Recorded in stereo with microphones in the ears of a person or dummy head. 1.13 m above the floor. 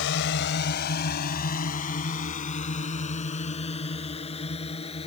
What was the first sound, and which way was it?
A drone, 70° left (ahead or behind).